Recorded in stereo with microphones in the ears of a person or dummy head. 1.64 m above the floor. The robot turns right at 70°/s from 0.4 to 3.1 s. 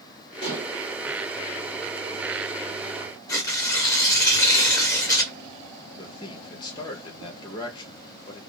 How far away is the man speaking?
About 0.9 m.